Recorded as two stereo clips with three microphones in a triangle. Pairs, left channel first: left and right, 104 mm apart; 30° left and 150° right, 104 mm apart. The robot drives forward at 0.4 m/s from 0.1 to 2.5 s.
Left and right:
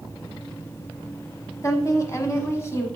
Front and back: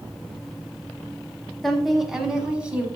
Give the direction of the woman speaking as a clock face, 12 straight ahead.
8 o'clock.